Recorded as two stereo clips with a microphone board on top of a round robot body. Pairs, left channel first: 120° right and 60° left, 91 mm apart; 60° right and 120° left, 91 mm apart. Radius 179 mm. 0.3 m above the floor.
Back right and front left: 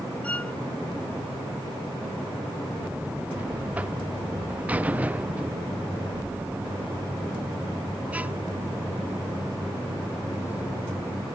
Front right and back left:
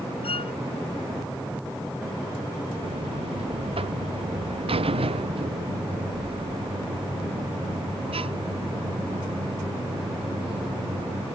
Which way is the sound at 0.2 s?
45° right.